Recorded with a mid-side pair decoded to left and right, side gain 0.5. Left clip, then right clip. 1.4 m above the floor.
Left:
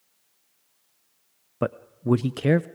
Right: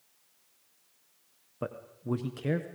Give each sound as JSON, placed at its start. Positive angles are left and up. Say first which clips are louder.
{"t": 1.6, "sound": "a man speaking", "louder": "left 10 dB", "azimuth_deg": 60, "distance_m": 0.6}